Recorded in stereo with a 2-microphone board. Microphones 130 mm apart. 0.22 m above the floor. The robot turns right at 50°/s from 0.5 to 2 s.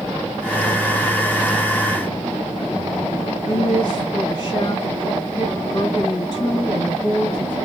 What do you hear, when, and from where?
3.5 s a woman speaking: 35° left (ahead or behind), 2.5 m